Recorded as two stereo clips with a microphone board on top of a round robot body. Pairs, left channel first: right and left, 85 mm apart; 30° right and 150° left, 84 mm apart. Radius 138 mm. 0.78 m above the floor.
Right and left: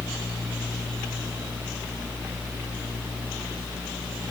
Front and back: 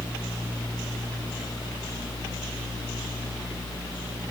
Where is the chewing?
I don't hear chewing.